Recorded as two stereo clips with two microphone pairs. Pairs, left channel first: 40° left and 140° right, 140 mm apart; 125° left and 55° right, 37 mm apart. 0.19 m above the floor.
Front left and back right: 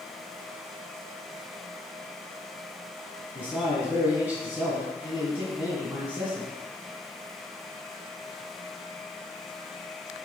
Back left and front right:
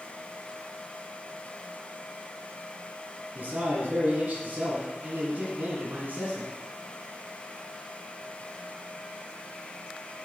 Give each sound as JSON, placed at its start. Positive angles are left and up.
{"t": 3.4, "sound": "a man speaking", "azimuth_deg": -65, "distance_m": 2.0}